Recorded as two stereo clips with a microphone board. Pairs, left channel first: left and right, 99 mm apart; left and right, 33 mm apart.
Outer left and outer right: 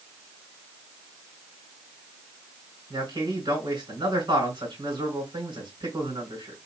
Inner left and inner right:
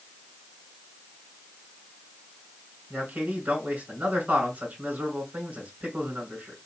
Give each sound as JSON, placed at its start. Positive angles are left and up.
{"t": 2.9, "sound": "a man speaking", "side_deg": -55, "distance_m": 3.0}